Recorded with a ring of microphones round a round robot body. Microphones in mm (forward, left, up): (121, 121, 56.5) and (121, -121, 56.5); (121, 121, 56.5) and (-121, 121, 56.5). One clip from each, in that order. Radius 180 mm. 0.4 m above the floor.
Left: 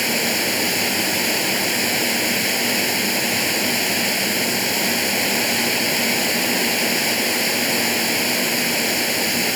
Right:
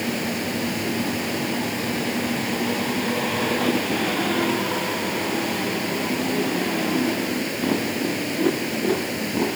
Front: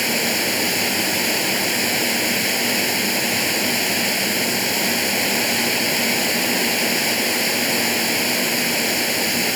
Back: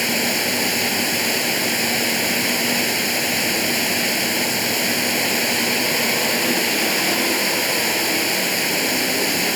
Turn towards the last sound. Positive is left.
turn(degrees=100)